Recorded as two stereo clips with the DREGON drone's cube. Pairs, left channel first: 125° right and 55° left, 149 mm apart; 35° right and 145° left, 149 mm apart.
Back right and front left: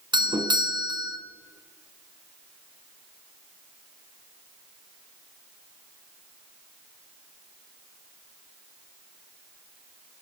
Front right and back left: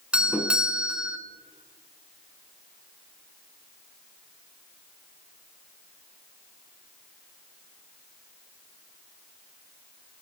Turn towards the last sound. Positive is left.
turn(degrees=70)